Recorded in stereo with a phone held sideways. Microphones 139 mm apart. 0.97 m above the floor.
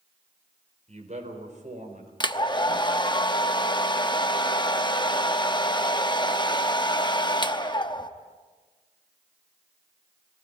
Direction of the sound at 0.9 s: 55° right (ahead or behind).